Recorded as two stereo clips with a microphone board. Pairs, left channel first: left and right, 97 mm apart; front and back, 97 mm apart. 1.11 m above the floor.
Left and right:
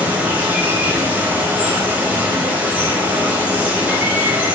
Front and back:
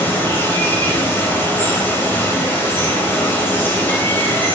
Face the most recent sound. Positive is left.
turn(degrees=-35)